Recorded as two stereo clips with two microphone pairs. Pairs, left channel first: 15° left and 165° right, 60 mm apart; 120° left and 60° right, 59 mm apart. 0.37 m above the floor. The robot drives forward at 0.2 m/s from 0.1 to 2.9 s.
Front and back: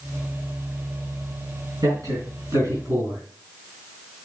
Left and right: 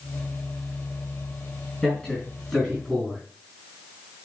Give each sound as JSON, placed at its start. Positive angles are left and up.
{"t": 1.8, "sound": "a man speaking", "azimuth_deg": -170, "distance_m": 4.5}